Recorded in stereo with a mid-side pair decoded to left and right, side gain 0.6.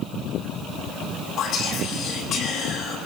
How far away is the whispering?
About 8.5 m.